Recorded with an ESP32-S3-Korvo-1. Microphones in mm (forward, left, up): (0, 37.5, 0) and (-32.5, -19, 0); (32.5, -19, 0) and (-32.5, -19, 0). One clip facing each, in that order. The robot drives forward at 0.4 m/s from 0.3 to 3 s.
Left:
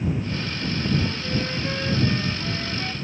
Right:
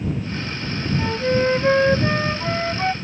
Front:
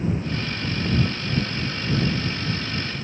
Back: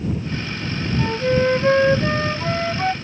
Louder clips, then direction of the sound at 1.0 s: Right 8 dB, back 8 dB; 160° right.